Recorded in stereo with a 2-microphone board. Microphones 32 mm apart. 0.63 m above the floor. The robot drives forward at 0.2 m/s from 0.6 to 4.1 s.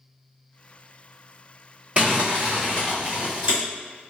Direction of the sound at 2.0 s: 35° right (ahead or behind).